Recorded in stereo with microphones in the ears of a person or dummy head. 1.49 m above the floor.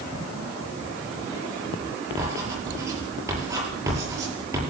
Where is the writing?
15° right (ahead or behind), 8.5 m.